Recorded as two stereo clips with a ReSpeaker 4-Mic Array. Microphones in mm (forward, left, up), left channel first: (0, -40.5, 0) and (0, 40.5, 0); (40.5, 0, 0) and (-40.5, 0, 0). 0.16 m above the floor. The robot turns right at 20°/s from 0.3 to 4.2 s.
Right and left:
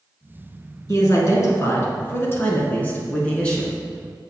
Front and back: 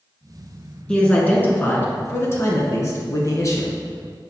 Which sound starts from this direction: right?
A man speaking, at 0.9 s.